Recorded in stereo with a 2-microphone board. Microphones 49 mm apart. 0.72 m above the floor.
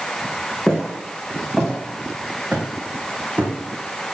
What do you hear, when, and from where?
0.7 s footsteps: 10° left (ahead or behind), 3 m; by 3.5 s 35° right (ahead or behind), 3 m